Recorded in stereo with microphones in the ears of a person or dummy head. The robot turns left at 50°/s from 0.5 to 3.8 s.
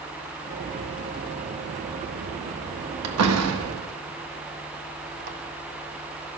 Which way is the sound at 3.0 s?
80° right.